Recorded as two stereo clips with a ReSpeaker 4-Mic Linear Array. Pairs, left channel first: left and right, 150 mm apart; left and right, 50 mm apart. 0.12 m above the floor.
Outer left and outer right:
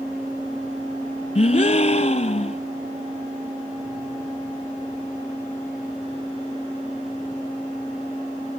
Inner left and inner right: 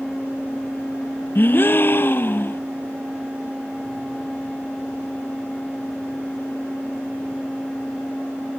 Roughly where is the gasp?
Left.